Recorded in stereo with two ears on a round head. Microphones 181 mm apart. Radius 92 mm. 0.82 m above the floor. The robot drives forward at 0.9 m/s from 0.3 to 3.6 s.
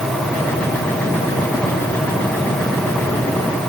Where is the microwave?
No microwave in this recording.